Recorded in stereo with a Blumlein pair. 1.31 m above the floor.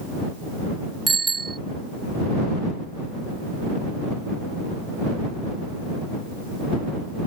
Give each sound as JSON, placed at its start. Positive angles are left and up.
{"t": 1.1, "sound": "a bicycle bell", "azimuth_deg": -15}